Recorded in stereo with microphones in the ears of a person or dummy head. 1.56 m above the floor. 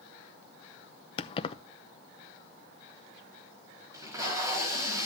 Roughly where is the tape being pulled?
Centre.